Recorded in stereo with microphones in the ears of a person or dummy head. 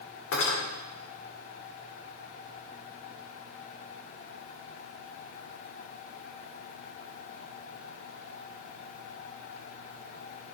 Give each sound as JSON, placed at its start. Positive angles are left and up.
{"t": 0.3, "sound": "cutlery clinking", "side_deg": 75, "distance_m": 3.0}